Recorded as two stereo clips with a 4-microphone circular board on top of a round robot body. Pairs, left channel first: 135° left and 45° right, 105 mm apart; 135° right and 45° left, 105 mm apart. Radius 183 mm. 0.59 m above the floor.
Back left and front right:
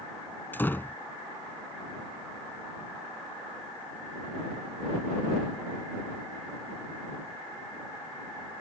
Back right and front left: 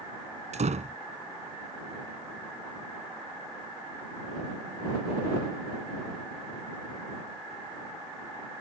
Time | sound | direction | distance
0.5 | a door slam | 60° left | ?